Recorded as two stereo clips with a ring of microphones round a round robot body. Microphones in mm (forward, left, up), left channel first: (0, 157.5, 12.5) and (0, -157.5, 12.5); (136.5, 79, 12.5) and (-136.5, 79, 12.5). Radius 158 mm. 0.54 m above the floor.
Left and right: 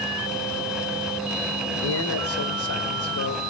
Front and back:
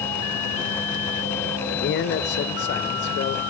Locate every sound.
1.7 s a man speaking: 50° left, 1.6 m